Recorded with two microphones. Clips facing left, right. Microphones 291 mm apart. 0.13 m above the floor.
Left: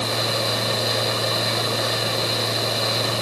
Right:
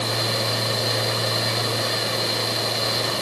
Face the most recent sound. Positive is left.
No sound to turn to.